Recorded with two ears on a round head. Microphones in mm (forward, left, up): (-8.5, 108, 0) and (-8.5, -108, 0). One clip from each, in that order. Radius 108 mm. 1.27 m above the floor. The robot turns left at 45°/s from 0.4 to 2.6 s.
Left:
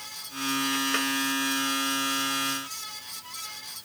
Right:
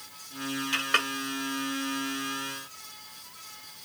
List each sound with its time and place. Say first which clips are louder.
0.7 s a clink: right 5 dB; 60° right (ahead or behind); by 1.1 s 40° right (ahead or behind)